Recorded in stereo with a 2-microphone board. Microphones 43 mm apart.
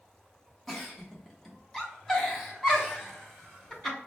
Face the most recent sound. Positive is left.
turn(degrees=0)  # may be behind; listen again after turning